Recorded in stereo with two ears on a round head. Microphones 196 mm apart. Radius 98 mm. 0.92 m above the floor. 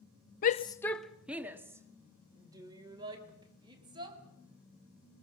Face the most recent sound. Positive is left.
turn(degrees=-20)  # may be behind; listen again after turning